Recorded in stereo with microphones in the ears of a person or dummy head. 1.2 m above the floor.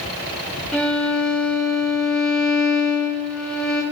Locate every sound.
0.7 s a violin: centre (ahead or behind), 2.0 m